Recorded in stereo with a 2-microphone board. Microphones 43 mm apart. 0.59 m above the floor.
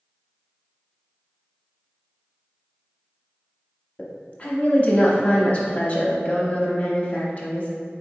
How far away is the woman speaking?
About 0.8 m.